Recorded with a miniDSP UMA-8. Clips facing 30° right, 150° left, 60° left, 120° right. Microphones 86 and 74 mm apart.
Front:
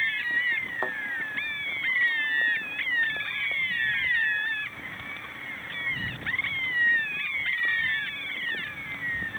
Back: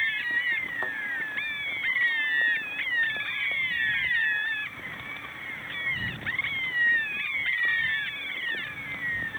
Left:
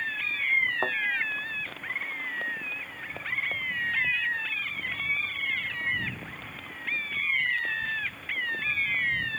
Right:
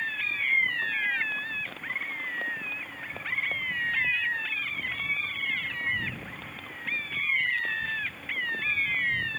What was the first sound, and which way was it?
A thud, 40° left.